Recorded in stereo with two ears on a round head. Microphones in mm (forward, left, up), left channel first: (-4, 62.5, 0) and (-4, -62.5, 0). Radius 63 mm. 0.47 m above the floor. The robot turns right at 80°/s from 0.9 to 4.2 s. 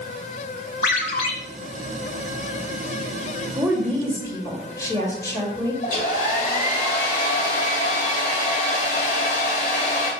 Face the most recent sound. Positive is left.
turn(degrees=65)  # may be behind; listen again after turning